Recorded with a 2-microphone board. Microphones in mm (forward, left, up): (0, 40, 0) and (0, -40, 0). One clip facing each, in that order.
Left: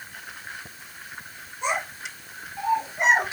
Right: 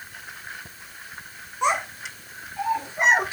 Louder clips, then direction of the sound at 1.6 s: Right 4 dB; 75° right (ahead or behind).